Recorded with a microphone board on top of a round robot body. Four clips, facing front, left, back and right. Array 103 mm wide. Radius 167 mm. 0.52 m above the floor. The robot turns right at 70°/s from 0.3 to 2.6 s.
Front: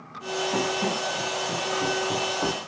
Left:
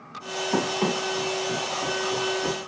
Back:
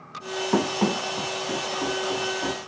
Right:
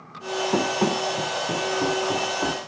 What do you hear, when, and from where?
0.5 s running footsteps: 150° right, 2 m; by 2.6 s 40° right, 2.5 m